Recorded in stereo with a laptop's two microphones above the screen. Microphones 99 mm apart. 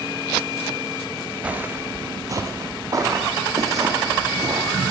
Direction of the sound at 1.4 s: 15° right (ahead or behind).